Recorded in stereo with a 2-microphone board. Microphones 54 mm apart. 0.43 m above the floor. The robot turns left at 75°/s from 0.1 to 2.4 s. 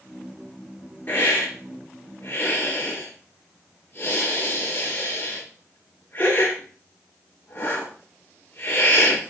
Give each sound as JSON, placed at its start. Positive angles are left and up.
{"t": 1.1, "sound": "a hiss", "side_deg": 30, "distance_m": 6.0}